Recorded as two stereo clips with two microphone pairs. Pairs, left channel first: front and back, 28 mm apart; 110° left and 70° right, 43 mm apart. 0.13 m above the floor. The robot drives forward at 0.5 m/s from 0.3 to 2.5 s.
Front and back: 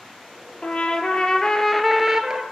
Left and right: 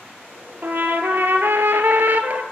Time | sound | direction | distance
0.6 | a trumpet | 35° right | 0.8 m